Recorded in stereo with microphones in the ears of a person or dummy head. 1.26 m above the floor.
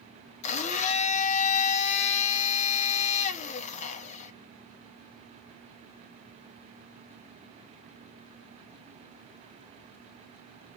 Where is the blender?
40° left (ahead or behind), 0.5 m.